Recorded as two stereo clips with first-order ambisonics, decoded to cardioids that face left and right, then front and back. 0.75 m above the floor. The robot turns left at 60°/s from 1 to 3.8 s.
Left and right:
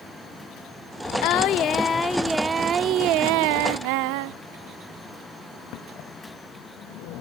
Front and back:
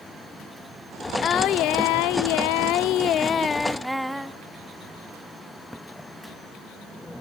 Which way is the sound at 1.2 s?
65° left.